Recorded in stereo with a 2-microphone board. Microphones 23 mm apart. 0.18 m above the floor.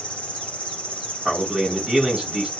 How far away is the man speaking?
About 1.8 m.